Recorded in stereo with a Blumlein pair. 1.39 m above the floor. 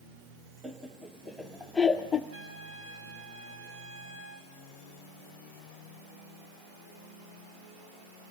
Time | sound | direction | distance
0.6 | laughter | 10° right | 1.7 m
2.3 | a trumpet | 50° right | 7 m